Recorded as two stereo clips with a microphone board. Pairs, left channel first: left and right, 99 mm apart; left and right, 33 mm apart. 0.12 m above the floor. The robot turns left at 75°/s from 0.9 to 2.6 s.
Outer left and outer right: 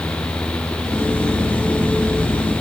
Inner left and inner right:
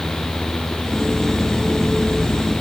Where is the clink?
I don't hear a clink.